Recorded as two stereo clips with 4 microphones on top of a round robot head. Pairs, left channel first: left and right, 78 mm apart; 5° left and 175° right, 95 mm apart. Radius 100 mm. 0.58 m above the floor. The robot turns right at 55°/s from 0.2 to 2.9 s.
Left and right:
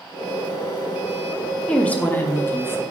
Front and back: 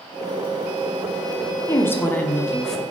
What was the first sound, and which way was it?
A woman speaking, 25° left.